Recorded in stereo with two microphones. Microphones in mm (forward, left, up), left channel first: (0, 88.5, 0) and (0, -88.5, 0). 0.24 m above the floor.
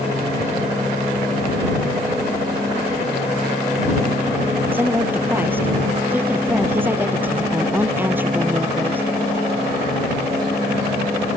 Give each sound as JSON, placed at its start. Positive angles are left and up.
{"t": 4.7, "sound": "a woman speaking", "side_deg": -10}